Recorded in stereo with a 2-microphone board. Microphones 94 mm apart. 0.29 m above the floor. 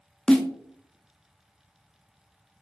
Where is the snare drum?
5° left (ahead or behind), 0.5 m.